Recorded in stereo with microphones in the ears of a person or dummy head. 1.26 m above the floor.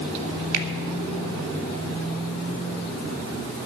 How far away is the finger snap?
About 1.8 m.